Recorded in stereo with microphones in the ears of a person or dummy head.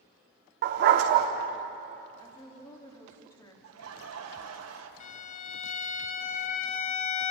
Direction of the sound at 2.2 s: 15° left (ahead or behind).